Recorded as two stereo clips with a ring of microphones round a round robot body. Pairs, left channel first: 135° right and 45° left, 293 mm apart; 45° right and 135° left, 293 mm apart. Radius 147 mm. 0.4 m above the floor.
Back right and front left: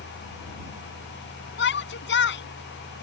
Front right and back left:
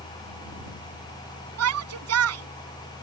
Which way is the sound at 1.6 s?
175° left.